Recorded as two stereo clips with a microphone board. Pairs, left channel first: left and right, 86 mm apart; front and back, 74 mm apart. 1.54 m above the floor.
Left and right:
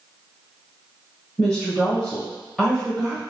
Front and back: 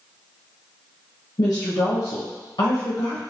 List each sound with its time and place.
1.4 s a woman speaking: 10° left, 0.9 m